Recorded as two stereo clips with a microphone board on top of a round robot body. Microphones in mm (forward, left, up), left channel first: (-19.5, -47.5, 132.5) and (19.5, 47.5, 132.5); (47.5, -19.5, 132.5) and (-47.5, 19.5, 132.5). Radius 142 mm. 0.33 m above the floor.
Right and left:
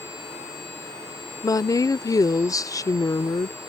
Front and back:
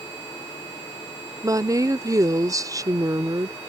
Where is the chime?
I don't hear a chime.